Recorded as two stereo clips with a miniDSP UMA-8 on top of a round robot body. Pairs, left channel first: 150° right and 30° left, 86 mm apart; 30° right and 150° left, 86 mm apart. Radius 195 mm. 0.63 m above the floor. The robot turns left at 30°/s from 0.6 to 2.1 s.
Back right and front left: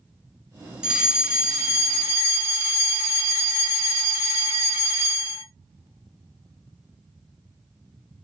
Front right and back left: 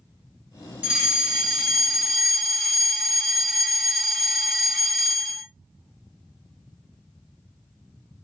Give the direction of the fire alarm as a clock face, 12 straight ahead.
9 o'clock.